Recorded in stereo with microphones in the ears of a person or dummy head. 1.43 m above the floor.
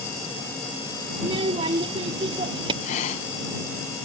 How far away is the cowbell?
I don't hear a cowbell.